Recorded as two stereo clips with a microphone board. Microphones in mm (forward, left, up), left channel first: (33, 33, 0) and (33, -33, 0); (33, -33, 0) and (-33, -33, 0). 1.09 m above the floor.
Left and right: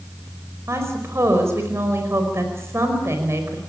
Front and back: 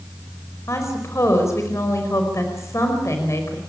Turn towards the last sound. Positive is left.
turn(degrees=-45)